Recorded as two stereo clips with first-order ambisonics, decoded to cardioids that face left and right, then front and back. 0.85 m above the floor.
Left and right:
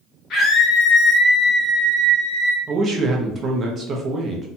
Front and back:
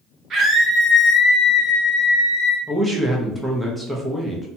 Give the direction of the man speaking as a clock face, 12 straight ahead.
3 o'clock.